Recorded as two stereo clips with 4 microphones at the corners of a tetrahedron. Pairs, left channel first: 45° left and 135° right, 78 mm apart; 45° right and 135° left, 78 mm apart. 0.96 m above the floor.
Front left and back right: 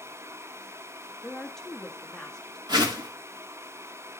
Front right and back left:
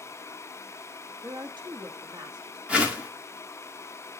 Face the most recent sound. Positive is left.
turn(degrees=-150)